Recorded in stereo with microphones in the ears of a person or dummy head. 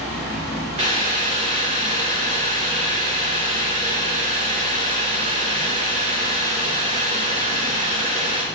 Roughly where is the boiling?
Right.